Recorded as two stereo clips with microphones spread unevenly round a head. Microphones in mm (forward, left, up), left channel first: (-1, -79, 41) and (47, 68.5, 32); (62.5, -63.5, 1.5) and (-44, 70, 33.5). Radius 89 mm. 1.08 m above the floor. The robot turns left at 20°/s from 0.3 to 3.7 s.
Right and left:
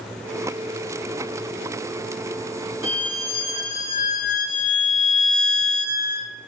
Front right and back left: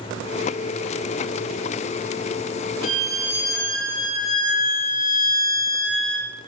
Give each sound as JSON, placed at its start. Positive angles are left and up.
{"t": 2.8, "sound": "a violin", "azimuth_deg": -45, "distance_m": 0.9}